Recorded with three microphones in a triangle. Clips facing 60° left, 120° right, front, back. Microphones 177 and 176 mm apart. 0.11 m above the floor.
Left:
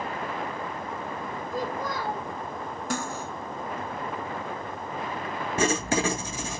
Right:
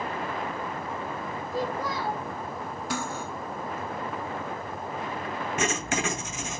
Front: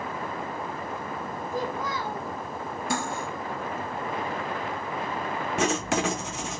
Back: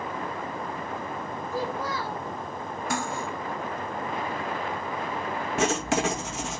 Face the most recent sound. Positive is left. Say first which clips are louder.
# left 5 dB, back 1 dB
turn(degrees=90)